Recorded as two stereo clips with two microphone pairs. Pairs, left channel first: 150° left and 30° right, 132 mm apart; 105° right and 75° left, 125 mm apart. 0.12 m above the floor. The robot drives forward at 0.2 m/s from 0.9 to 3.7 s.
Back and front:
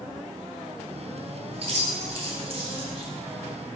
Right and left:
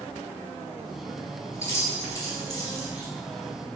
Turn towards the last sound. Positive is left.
turn(degrees=-60)